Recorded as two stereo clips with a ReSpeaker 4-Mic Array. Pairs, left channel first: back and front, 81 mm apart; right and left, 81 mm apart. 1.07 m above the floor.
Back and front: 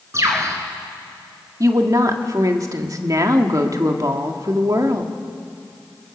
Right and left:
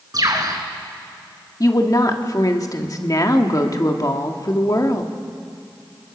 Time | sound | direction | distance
0.1 | a bird | 50° left | 3 m
1.6 | a woman speaking | 45° right | 1.7 m